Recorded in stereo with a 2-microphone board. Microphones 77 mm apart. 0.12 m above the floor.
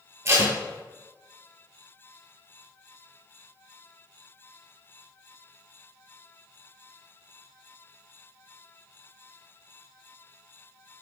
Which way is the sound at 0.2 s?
40° right (ahead or behind).